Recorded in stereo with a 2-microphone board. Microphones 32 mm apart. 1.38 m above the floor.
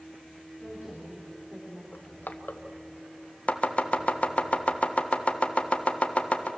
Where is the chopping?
40° left (ahead or behind), 1.4 m.